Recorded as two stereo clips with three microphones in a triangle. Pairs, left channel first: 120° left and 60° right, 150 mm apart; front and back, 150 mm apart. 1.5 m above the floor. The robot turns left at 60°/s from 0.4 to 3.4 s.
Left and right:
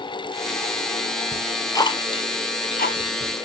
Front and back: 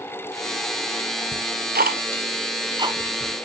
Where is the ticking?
145° right, 0.9 m; by 3.4 s 90° left, 0.9 m.